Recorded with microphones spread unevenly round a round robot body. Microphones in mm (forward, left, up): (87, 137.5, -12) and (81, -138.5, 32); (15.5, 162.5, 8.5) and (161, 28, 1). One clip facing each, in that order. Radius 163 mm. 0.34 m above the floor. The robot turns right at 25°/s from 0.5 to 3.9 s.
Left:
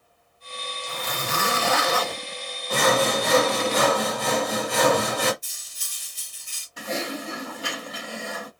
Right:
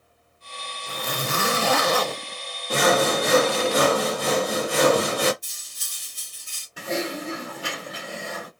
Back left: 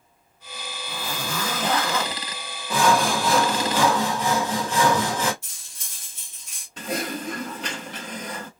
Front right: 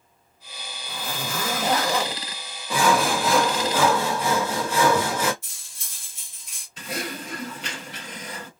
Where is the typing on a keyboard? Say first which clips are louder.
Right 2 dB, back left 4 dB; straight behind, 2.5 m.